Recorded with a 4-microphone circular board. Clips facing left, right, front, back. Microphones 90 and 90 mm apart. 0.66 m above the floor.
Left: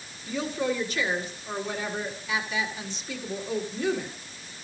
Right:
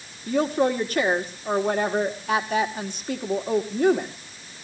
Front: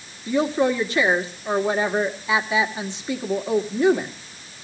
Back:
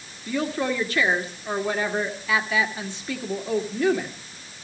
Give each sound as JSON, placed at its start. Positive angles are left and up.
{"t": 0.3, "sound": "a woman speaking", "azimuth_deg": -65, "distance_m": 1.8}